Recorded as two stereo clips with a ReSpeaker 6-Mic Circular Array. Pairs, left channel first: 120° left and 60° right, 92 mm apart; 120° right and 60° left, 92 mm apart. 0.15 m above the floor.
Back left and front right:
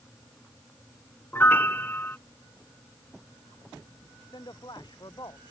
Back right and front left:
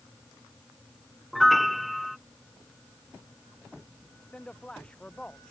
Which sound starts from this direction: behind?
A man speaking, at 4.3 s.